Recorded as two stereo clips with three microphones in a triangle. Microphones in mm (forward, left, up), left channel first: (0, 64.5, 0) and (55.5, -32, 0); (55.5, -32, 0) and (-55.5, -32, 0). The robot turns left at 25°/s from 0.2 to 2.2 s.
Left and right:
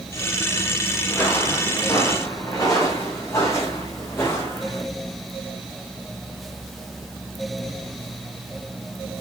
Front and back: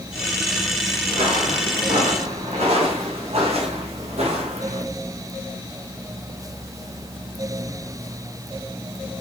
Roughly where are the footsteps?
Behind.